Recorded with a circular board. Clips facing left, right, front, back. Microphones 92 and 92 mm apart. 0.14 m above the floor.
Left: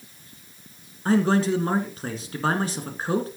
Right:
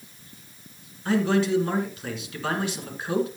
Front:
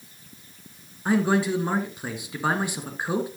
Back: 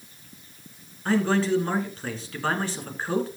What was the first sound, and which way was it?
A man speaking, 70° left.